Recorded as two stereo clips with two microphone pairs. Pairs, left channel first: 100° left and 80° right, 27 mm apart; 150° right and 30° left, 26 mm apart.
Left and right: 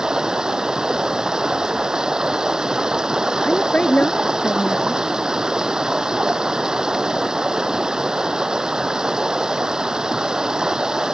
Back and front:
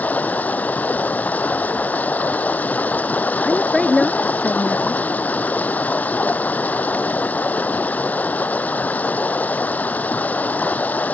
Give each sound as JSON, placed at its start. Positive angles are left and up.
{"t": 0.0, "sound": "running water", "azimuth_deg": -145}
{"t": 3.4, "sound": "a woman speaking", "azimuth_deg": 140}